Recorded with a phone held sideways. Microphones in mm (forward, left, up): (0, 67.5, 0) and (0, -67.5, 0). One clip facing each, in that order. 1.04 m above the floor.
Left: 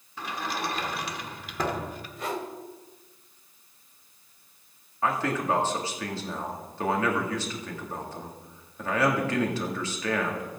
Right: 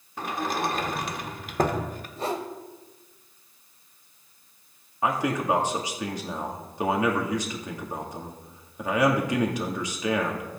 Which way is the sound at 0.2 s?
50° right (ahead or behind).